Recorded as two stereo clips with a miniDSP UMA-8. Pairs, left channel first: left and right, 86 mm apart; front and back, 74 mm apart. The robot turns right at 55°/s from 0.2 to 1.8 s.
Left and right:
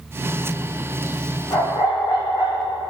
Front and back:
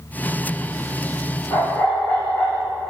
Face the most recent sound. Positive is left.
turn(degrees=65)